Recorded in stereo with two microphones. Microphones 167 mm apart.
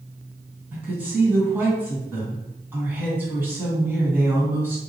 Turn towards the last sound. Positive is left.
turn(degrees=-10)  # may be behind; listen again after turning